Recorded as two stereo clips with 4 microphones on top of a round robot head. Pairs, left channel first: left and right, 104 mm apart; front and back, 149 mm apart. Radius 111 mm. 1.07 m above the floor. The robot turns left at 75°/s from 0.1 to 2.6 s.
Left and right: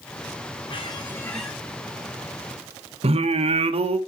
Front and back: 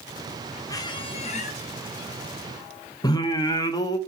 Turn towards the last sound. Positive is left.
turn(degrees=-65)